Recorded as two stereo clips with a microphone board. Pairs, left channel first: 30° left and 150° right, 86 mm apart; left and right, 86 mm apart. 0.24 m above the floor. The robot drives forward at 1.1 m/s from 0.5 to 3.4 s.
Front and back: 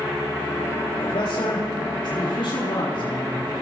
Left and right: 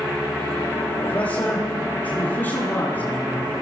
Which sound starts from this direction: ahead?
A man speaking, at 1.0 s.